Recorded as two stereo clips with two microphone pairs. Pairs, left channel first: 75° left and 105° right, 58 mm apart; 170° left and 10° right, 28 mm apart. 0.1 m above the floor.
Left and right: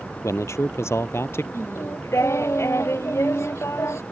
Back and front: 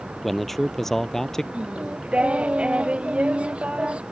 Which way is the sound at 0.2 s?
90° left.